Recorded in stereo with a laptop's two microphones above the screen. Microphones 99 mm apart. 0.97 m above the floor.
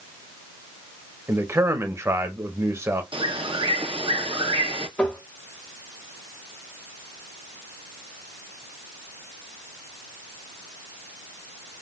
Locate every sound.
1.3 s a man speaking: 25° right (ahead or behind), 0.9 m
3.1 s a bird: 60° right (ahead or behind), 0.7 m
5.0 s tapping: 10° left (ahead or behind), 0.9 m